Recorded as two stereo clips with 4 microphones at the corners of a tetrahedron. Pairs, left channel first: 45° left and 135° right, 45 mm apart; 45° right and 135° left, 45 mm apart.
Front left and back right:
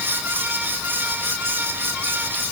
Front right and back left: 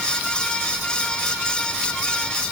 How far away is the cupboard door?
No cupboard door in this recording.